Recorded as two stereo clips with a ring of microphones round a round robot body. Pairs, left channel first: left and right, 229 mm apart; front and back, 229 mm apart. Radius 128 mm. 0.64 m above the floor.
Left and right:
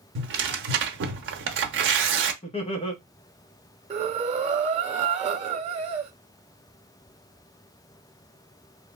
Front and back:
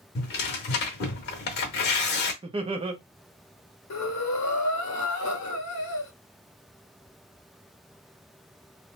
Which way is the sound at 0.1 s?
50° right.